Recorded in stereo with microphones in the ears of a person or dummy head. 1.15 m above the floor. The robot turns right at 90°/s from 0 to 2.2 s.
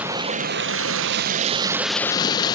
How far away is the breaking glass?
I don't hear breaking glass.